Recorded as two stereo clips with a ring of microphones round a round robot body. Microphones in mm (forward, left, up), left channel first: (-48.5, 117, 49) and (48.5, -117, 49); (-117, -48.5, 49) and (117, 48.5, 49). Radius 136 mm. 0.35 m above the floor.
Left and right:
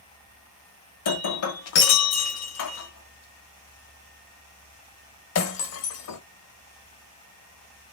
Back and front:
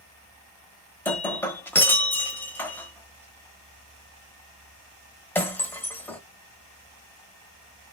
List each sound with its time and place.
1.1 s breaking glass: 120° left, 1.1 m